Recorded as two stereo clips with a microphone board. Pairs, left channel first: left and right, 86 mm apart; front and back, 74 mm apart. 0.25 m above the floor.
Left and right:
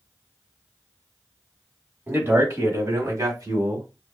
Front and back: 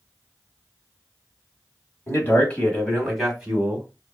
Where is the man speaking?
35° right, 1.4 m; by 3.9 s 115° right, 1.5 m.